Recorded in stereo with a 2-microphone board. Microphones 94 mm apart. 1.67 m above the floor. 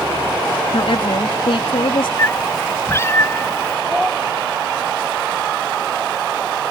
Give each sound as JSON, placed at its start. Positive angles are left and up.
{"t": 0.7, "sound": "a woman speaking", "side_deg": 85}
{"t": 2.2, "sound": "a cat meowing", "side_deg": 30}
{"t": 3.9, "sound": "a child speaking", "side_deg": -10}